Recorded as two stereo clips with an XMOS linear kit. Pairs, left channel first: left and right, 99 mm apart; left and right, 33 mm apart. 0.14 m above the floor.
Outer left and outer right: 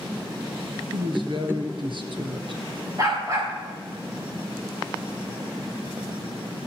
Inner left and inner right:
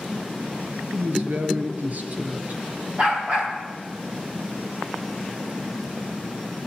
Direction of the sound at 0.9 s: 55° right (ahead or behind).